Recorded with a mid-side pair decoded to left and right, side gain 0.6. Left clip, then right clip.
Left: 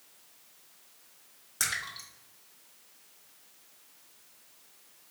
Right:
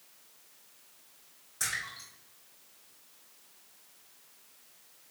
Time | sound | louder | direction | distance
1.6 | a splash | left 2 dB | 55° left | 1.2 m